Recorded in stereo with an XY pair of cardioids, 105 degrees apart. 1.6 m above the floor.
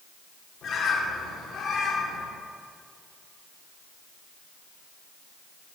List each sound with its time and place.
0.6 s a bird: 60° left, 1.2 m